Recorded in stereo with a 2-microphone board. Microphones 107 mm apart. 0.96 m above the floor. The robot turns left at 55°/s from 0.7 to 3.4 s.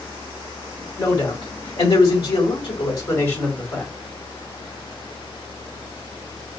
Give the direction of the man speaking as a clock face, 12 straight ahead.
7 o'clock.